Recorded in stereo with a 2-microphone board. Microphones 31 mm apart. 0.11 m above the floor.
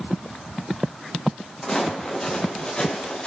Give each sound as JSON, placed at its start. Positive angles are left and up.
{"t": 1.6, "sound": "footsteps", "side_deg": 20, "distance_m": 5.5}